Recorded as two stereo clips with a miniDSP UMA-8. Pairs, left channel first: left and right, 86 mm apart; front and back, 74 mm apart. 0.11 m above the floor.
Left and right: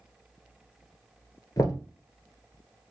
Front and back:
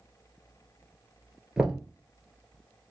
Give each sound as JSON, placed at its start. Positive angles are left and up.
{"t": 1.6, "sound": "knocking", "azimuth_deg": 100, "distance_m": 1.1}